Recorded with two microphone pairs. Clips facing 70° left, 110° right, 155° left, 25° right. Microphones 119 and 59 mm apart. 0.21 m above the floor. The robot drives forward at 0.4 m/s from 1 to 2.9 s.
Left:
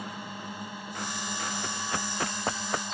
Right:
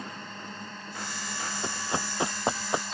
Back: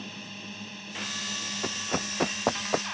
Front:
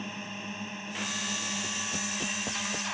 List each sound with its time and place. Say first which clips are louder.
0.0 s a drone: left 2 dB, front 3 dB; 5° left; by 2.9 s 10° left
1.6 s running footsteps: right 1 dB, back 3 dB; 175° right; by 2.8 s straight behind